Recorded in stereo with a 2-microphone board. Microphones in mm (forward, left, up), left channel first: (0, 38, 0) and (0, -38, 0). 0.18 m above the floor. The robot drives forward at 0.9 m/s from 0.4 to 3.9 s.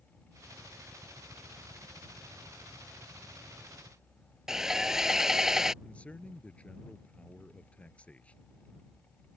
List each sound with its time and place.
4.5 s sawing: 5° right (ahead or behind)
5.8 s a man speaking: 15° left (ahead or behind)